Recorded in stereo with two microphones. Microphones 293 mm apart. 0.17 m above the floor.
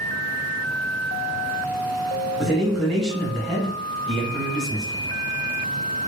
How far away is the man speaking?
About 1.0 m.